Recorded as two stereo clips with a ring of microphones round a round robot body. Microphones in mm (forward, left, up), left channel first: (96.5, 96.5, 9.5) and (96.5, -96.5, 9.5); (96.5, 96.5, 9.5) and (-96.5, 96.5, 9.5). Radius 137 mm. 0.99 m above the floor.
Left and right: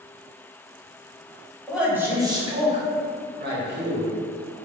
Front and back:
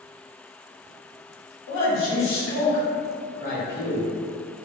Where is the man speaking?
Straight ahead, 1.1 m; by 4.1 s 70° right, 1.2 m.